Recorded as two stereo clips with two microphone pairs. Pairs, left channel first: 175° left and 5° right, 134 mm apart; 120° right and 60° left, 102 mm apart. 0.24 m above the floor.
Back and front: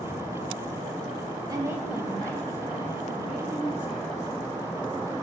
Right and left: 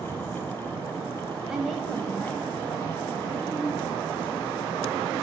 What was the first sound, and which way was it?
A woman speaking, 20° right.